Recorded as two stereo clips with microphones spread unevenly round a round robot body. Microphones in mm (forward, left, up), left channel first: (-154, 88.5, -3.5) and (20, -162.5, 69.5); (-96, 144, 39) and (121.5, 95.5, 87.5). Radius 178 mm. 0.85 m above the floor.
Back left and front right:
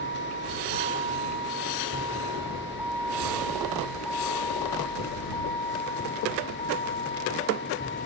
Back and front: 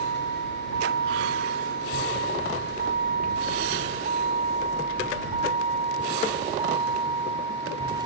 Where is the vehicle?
10° left; by 8.1 s 60° left.